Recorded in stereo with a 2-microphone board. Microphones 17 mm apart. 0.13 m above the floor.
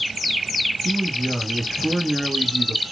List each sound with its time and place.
0.8 s a man speaking: 15° right (ahead or behind), 1.6 m